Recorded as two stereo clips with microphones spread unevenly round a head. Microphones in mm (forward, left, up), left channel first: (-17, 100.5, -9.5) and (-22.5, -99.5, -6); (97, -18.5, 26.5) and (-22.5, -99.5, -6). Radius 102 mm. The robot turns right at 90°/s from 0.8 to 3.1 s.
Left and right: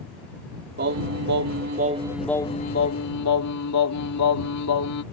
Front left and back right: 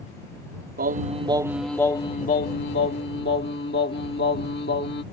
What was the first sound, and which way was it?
Singing, 130° right.